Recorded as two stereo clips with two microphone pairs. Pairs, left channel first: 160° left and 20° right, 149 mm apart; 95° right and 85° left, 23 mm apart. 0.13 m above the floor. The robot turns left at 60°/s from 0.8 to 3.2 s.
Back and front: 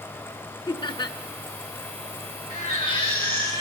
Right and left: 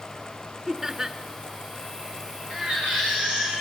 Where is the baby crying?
125° left, 8.5 m; by 3.6 s 85° left, 8.5 m.